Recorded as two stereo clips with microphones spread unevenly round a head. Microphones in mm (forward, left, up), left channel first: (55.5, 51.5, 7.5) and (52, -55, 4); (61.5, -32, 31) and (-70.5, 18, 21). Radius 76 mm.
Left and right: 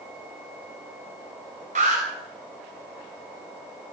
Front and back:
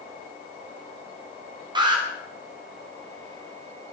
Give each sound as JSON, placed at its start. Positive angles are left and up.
{"t": 1.8, "sound": "an alarm", "azimuth_deg": -140, "distance_m": 5.0}